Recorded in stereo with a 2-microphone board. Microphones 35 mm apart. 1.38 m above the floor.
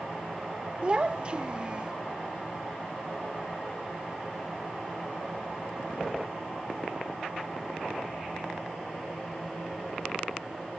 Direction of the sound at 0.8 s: 30° right (ahead or behind).